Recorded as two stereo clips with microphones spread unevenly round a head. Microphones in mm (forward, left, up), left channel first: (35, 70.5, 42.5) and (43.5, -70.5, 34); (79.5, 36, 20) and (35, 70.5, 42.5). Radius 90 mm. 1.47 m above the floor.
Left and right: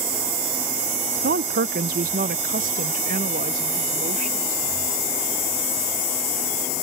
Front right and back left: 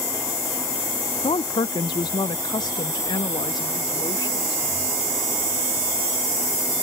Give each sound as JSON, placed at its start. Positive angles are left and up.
{"t": 1.2, "sound": "a woman speaking", "azimuth_deg": -70}